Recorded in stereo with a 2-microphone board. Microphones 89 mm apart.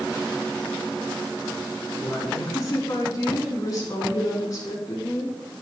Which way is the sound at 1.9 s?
45° left (ahead or behind).